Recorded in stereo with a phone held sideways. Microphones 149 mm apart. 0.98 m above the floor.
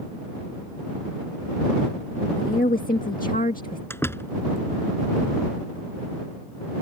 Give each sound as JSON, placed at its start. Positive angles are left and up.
{"t": 2.4, "sound": "a woman speaking", "side_deg": 70}
{"t": 3.9, "sound": "a door slam", "side_deg": 15}